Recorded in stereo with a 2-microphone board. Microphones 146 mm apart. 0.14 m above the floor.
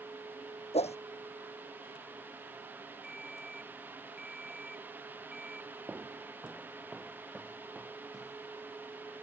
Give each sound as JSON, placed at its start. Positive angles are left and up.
{"t": 0.7, "sound": "a whoosh", "side_deg": 50}
{"t": 3.0, "sound": "a ringtone", "side_deg": -5}
{"t": 5.9, "sound": "footsteps", "side_deg": -15}